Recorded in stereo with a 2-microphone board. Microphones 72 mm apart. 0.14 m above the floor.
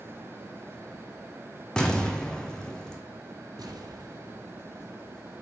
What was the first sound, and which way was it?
An explosion, 10° left (ahead or behind).